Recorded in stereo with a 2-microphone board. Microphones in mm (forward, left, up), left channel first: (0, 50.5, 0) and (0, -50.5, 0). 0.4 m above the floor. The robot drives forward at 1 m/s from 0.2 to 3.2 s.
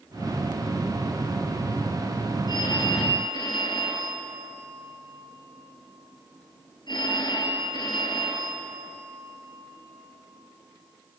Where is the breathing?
No breathing in this recording.